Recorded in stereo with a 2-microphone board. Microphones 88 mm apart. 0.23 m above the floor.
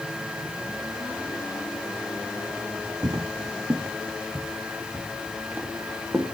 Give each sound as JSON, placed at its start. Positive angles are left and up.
{"t": 3.0, "sound": "footsteps", "side_deg": -50, "distance_m": 0.7}